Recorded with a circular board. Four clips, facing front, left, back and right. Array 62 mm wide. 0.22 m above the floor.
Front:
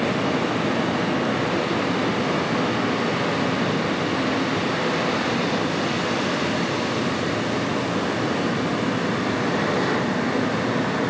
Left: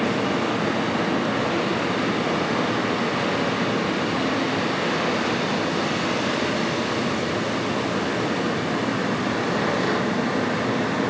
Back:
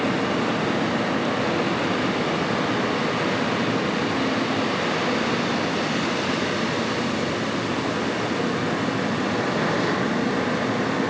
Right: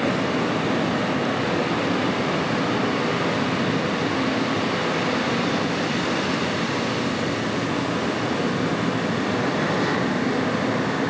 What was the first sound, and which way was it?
Only background noise.